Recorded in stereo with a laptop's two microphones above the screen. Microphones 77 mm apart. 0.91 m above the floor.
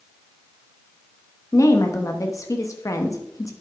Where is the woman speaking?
45° left (ahead or behind), 0.9 m.